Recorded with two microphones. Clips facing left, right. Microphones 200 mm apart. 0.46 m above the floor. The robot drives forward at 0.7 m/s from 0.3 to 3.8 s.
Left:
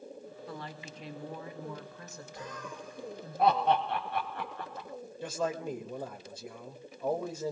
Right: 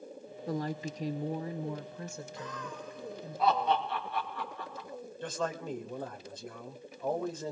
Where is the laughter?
45° left (ahead or behind), 3 m; by 4.9 s 65° left (ahead or behind), 2.5 m.